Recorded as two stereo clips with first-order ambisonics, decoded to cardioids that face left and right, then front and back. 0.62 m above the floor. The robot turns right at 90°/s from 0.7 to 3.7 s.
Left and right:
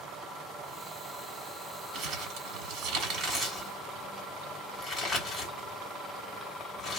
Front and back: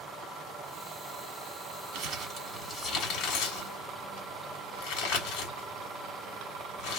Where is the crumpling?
150° right, 1.8 m; by 7.0 s 10° left, 1.8 m.